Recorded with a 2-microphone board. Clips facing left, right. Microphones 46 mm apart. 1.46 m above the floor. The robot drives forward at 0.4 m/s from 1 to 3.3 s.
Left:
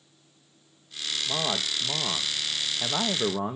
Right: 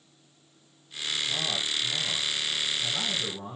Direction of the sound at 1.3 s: 65° left (ahead or behind).